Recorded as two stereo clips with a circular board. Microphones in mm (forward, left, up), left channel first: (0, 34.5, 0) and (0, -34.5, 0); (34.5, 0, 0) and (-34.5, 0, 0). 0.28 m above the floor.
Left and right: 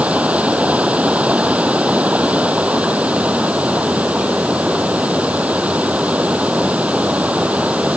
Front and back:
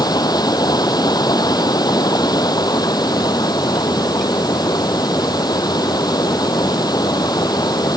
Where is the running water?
15° right.